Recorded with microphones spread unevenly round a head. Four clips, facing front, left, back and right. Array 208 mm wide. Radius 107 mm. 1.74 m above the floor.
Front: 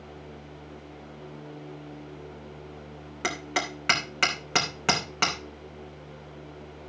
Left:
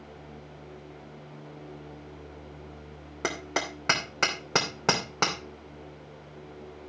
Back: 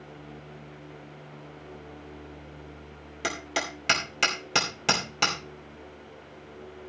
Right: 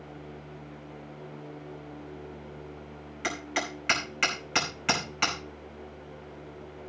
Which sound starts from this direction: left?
Hammering, at 3.2 s.